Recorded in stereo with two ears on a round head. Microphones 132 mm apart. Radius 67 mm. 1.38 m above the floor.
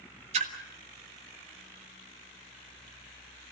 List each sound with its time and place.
0.3 s a splash: 45° right (ahead or behind), 2 m